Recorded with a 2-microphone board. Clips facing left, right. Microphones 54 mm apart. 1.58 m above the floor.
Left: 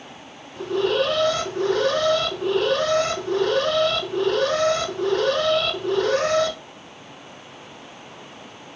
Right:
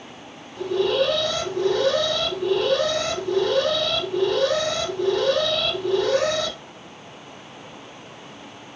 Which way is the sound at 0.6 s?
40° left (ahead or behind).